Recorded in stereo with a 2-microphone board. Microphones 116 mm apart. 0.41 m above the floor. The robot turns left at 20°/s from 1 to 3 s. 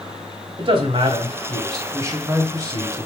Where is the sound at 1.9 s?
25° right (ahead or behind), 1.4 m; by 3.1 s 40° right (ahead or behind), 1.4 m.